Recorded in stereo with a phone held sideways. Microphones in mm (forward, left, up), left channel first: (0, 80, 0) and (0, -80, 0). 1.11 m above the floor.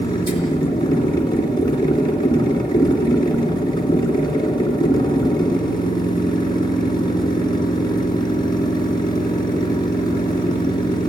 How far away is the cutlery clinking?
No cutlery clinking in this recording.